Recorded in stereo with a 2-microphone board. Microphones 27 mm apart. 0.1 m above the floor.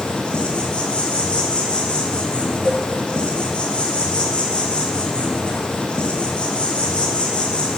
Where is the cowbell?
5° right (ahead or behind), 5 m.